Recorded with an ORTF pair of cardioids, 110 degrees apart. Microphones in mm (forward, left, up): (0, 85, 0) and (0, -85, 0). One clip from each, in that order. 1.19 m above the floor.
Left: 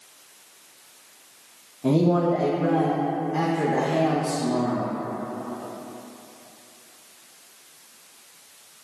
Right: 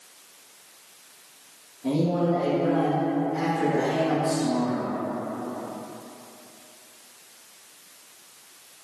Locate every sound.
1.8 s a man speaking: 50° left, 0.6 m